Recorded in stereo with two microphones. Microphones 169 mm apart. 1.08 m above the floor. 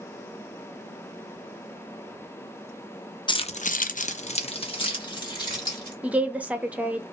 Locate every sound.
3.3 s keys jangling: 25° left (ahead or behind), 0.6 m
6.0 s a woman speaking: 10° right (ahead or behind), 0.6 m